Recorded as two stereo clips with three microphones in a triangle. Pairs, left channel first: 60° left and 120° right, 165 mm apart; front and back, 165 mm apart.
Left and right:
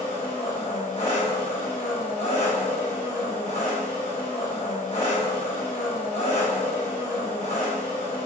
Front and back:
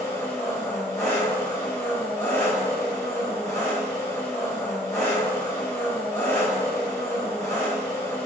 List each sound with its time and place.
0.0 s an engine running: 65° left, 1.2 m